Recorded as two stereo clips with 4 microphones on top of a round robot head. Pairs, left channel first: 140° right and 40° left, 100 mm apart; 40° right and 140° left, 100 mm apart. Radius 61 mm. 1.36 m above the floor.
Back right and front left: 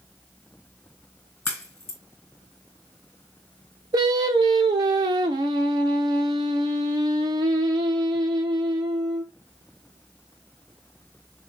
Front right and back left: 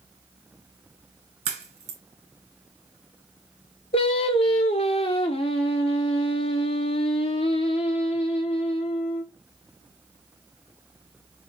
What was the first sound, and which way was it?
A crack, 160° left.